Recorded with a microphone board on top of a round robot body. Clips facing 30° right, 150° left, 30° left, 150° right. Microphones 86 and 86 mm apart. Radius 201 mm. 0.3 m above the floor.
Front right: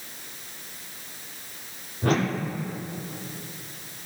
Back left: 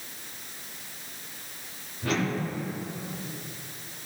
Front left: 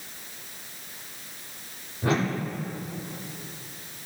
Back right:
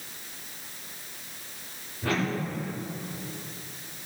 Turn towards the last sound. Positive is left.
turn(degrees=-30)